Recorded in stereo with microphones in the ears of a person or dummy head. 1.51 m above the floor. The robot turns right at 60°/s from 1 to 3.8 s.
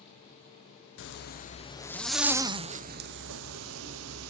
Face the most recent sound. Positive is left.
turn(degrees=-80)